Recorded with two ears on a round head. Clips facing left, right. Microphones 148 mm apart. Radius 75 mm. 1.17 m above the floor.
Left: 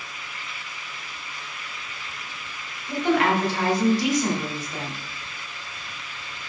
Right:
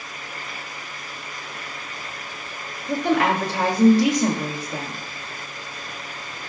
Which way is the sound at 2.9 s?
80° right.